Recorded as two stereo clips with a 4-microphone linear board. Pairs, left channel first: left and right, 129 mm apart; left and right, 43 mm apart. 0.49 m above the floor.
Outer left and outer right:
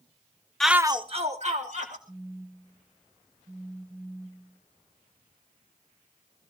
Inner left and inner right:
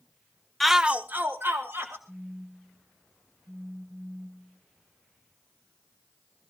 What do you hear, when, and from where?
0.6 s a shout: 5° left (ahead or behind), 0.7 m; by 2.0 s 65° right (ahead or behind), 1.9 m
2.1 s a phone buzzing: 55° right (ahead or behind), 1.0 m